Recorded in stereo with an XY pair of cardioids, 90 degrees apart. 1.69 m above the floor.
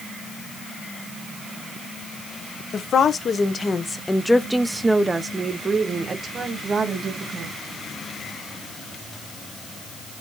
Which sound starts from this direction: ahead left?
A woman speaking, at 2.7 s.